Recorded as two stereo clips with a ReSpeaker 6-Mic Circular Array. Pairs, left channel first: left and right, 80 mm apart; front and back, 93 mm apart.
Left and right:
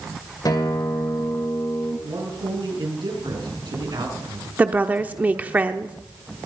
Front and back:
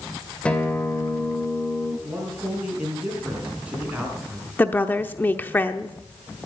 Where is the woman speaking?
45° right, 0.8 m.